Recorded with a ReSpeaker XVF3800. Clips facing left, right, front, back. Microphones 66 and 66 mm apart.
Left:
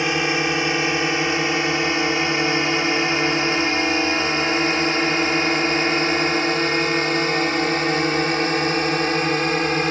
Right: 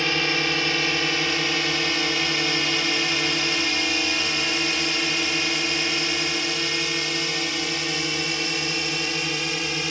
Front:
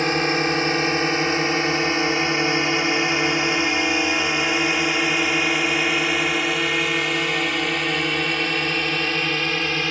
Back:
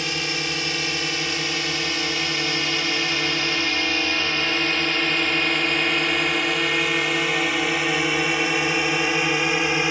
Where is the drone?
25° left; by 9.9 s 110° left.